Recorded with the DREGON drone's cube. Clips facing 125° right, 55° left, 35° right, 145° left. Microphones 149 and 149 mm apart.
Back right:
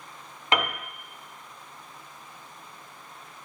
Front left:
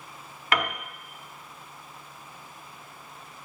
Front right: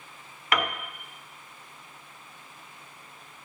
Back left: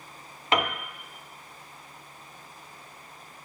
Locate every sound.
0.5 s a piano: 170° right, 0.7 m